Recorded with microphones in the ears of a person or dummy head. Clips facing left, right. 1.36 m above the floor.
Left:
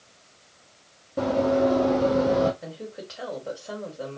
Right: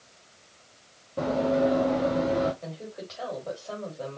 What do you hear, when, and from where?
1.2 s running footsteps: 10° left (ahead or behind), 2 m; by 2.5 s 40° left (ahead or behind), 2 m
2.6 s a woman speaking: 10° left (ahead or behind), 3 m